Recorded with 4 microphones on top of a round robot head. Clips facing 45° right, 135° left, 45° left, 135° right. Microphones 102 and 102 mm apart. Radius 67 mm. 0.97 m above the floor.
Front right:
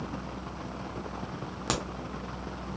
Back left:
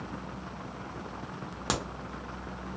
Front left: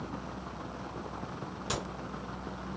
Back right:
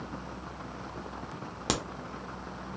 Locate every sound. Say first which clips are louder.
1.7 s a crack: even, back right 5 dB; 140° right, 0.6 m